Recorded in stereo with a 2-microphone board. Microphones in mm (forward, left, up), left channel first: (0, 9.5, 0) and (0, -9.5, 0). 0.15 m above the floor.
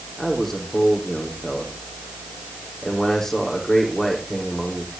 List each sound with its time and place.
0.2 s a man speaking: 20° left (ahead or behind), 6 m